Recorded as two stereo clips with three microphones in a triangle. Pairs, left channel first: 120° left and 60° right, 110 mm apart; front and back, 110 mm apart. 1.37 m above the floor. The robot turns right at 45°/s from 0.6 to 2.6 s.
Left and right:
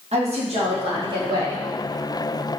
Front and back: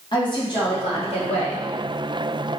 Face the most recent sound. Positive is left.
turn(degrees=45)